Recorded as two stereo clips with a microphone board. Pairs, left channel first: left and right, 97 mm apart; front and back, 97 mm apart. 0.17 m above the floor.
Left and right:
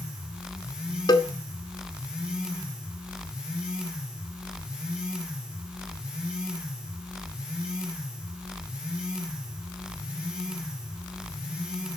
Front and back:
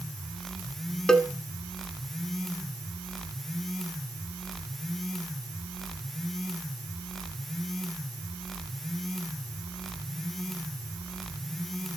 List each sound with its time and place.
1.1 s a cowbell: 80° left, 1.2 m